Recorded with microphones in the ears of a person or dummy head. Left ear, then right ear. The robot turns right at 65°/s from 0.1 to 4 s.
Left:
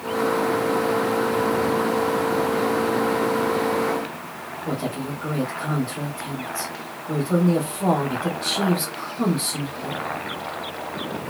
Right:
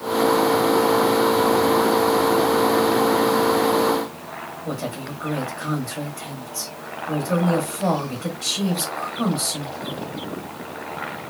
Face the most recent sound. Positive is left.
turn(degrees=-15)  # may be behind; listen again after turning